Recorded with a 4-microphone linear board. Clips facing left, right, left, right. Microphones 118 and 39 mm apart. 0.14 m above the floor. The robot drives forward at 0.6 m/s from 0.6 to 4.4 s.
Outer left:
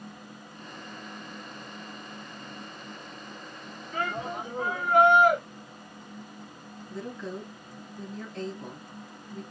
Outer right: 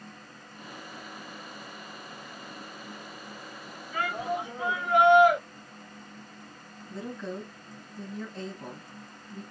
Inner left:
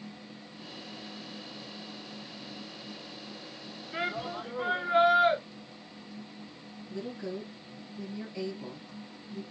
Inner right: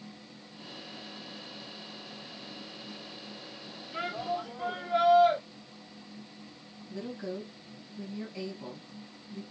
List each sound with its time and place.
3.9 s a shout: 45° left (ahead or behind), 1.8 m
6.9 s a woman speaking: centre (ahead or behind), 3 m